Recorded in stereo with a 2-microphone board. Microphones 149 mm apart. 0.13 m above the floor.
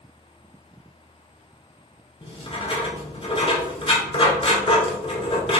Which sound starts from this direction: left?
Writing, at 2.2 s.